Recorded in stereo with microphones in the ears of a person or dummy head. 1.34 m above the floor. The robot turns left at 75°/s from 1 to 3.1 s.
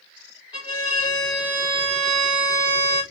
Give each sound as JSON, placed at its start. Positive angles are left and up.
{"t": 0.5, "sound": "a violin", "azimuth_deg": 30, "distance_m": 1.2}